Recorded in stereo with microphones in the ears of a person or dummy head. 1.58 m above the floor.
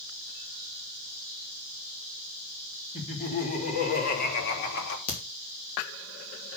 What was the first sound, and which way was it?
Laughter, 35° left (ahead or behind).